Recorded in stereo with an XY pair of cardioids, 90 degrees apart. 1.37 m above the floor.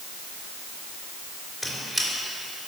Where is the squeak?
5° left, 3 m.